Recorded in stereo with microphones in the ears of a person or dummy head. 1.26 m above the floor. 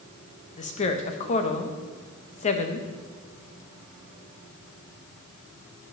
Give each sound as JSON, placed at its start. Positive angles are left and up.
{"t": 0.6, "sound": "a woman speaking", "side_deg": 40, "distance_m": 1.0}